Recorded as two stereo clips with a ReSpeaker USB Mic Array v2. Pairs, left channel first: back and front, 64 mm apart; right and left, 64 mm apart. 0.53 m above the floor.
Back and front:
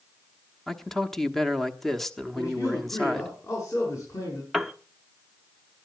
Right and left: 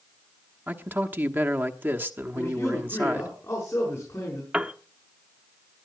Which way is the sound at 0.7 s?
100° left.